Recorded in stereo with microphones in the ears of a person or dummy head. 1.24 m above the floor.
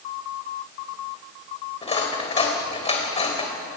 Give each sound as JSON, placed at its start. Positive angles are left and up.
{"t": 1.8, "sound": "cutlery clinking", "side_deg": 25, "distance_m": 3.5}